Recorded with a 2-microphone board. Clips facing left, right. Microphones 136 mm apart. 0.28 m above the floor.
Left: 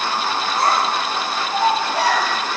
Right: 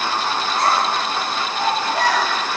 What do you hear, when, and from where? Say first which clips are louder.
0.6 s a child speaking: even; 10° left (ahead or behind), 2.5 m